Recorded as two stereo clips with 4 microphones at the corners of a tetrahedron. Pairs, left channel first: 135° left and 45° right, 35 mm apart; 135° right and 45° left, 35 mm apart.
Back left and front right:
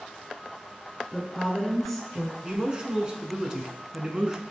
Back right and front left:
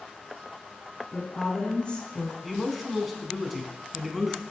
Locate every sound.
1.1 s a woman speaking: 140° right, 1.2 m
2.4 s a man speaking: 45° right, 1.1 m